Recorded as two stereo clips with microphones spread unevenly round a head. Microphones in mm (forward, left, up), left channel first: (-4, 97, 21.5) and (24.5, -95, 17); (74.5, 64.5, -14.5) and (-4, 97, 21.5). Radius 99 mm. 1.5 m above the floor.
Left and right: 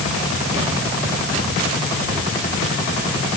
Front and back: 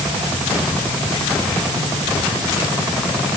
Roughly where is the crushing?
No crushing in this recording.